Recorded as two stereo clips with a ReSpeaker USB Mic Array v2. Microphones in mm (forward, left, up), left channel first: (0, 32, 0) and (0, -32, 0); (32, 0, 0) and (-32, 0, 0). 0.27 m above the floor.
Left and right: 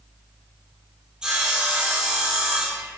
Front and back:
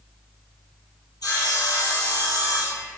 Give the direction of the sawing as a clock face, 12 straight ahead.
12 o'clock.